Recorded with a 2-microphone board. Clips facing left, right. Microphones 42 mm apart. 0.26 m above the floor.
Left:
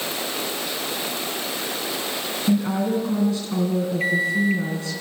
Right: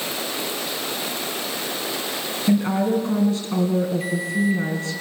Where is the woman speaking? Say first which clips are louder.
Right 2 dB; 20° right (ahead or behind), 2.5 m.